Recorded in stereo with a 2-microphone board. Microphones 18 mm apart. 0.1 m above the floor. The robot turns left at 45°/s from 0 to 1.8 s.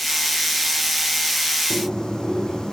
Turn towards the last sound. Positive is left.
turn(degrees=40)  # may be behind; listen again after turning